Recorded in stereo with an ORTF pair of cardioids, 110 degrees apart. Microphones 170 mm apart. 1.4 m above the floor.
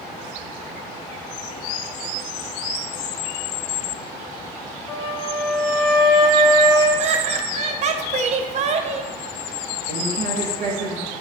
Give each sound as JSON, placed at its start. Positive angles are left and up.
{"t": 4.9, "sound": "a flute", "azimuth_deg": 25, "distance_m": 0.7}
{"t": 7.0, "sound": "laughter", "azimuth_deg": -45, "distance_m": 0.6}
{"t": 9.9, "sound": "a woman speaking", "azimuth_deg": -65, "distance_m": 1.2}